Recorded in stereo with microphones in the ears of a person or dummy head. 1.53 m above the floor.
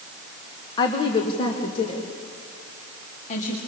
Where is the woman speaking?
20° left (ahead or behind), 1.8 m; by 3.6 s 40° left (ahead or behind), 4 m.